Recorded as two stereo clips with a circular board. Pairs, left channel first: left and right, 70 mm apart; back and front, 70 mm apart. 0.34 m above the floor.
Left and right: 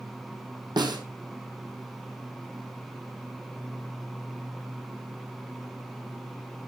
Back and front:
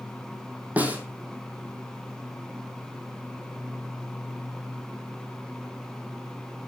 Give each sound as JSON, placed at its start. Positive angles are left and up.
{"t": 0.8, "sound": "a snare drum", "azimuth_deg": -70, "distance_m": 2.5}